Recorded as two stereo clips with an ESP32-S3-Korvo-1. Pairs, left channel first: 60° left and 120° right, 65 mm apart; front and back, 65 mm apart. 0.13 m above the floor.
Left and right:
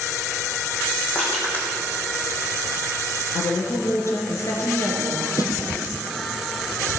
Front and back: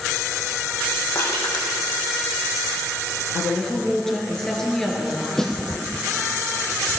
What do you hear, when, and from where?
1.1 s crushing: 5° right, 3.5 m
3.3 s a woman speaking: 80° left, 2.5 m
5.4 s a snare drum: 85° left, 1.6 m